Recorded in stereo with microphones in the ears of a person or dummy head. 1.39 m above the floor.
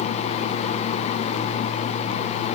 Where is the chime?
No chime in this recording.